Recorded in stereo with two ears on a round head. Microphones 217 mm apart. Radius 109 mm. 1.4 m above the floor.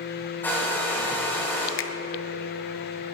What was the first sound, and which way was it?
A hair dryer, 10° left (ahead or behind).